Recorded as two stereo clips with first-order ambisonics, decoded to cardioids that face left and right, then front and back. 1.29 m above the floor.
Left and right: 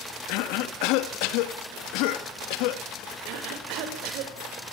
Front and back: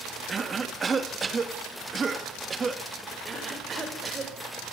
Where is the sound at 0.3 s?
105° left, 2.0 m.